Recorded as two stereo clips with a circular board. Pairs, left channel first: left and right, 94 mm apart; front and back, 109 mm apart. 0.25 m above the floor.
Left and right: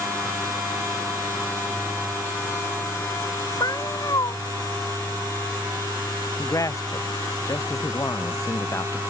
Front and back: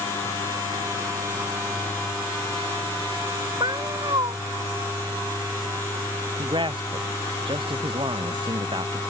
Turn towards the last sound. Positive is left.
turn(degrees=140)